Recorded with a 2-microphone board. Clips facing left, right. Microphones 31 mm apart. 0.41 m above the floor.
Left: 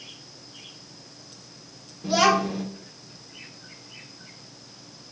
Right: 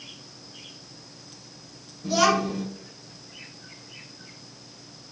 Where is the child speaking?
40° left (ahead or behind), 0.6 m.